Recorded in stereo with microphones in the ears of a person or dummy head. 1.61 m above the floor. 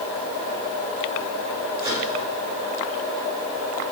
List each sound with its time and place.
1.8 s a microwave: 35° right (ahead or behind), 5 m